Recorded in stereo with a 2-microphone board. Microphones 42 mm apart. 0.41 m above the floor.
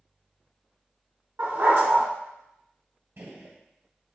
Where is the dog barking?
65° right (ahead or behind), 1.7 m.